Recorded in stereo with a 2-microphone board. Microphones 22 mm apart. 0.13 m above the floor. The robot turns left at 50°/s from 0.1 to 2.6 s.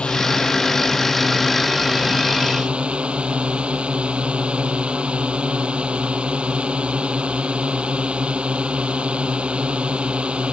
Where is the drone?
65° left; by 10.5 s 60° right.